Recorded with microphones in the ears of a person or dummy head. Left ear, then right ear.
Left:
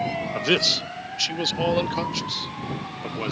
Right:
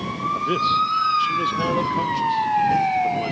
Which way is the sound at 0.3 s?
65° left (ahead or behind).